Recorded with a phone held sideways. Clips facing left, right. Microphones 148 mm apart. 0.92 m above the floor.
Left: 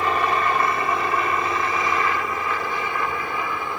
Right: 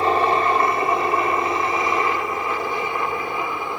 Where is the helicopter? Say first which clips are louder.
Right 3 dB; 30° right (ahead or behind); by 3.8 s 20° right (ahead or behind).